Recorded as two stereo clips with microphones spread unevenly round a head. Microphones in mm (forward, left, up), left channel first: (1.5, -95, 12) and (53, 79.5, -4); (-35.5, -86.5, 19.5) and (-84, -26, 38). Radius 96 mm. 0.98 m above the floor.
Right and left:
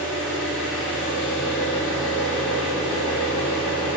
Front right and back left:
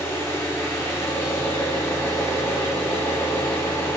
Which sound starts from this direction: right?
An engine running, at 0.0 s.